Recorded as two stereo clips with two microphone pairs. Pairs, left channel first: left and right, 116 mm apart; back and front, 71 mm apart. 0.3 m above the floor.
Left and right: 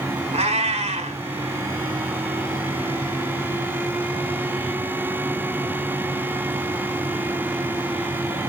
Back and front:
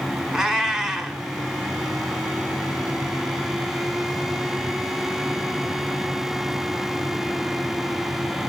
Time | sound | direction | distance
0.3 | a cat meowing | 85° right | 1.1 m